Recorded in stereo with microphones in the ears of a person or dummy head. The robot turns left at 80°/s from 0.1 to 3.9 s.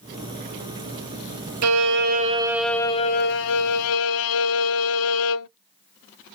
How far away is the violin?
About 0.5 m.